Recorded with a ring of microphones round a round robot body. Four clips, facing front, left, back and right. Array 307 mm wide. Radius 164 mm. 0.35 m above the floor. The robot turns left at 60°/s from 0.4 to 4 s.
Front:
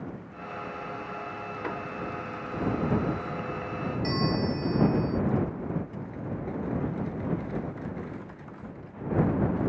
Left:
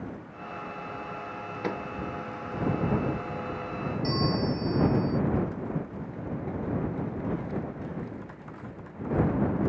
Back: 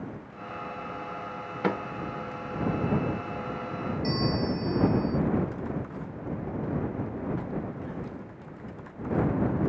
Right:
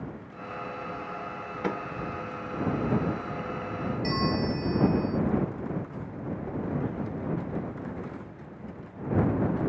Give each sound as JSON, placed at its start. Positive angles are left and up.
{"t": 1.6, "sound": "a microwave", "azimuth_deg": -165}
{"t": 4.0, "sound": "a bell", "azimuth_deg": -70}